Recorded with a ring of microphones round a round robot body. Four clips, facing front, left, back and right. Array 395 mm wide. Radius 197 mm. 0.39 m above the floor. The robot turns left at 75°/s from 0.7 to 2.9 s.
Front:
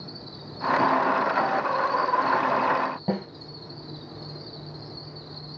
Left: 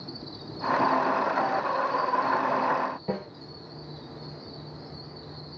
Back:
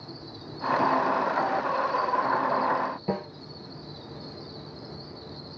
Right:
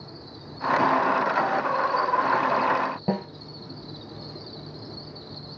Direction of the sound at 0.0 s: 80° left.